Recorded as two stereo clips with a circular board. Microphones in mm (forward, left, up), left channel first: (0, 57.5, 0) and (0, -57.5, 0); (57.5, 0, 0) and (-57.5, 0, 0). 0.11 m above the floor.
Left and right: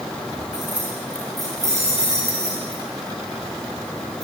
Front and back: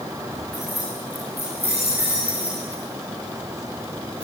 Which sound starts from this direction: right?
Keys jangling, at 0.5 s.